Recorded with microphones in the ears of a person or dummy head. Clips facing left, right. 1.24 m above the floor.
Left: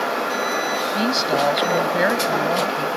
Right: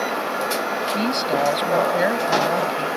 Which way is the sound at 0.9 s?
10° left (ahead or behind).